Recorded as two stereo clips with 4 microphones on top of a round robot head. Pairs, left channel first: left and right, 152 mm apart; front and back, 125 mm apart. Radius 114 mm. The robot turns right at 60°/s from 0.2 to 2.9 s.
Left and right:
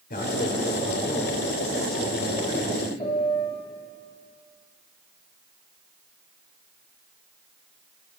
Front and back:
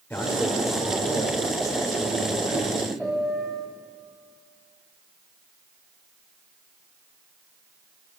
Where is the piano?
90° left, 1.4 m.